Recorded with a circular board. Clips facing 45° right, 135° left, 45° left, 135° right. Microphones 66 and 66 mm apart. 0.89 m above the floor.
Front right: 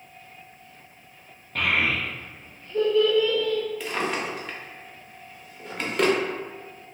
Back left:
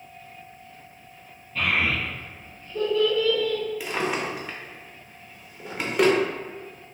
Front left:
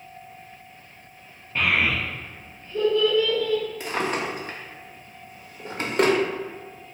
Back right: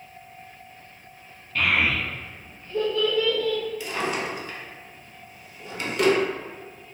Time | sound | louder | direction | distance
1.6 | a child speaking | even, even | 25° right | 0.7 m
3.8 | a drawer | back left 1 dB, front left 1 dB | 60° left | 0.6 m